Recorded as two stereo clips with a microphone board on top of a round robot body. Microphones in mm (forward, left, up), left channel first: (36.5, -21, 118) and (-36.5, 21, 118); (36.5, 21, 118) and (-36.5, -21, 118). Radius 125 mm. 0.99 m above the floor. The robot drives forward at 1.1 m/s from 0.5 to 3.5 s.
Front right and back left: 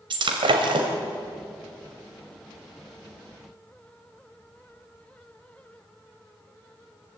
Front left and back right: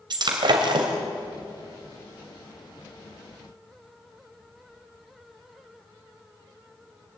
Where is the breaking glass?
175° left, 2 m.